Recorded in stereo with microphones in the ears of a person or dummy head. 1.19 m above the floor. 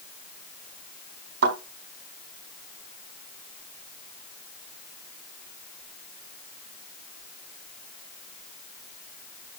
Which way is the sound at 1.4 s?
70° right (ahead or behind).